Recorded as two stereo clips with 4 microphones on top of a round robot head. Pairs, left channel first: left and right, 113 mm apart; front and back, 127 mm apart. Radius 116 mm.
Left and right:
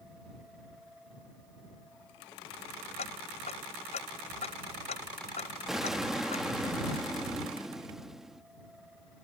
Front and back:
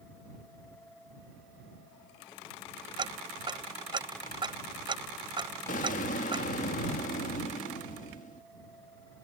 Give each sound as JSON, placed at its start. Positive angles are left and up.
{"t": 3.0, "sound": "ticking", "azimuth_deg": 130}
{"t": 5.7, "sound": "an explosion", "azimuth_deg": -5}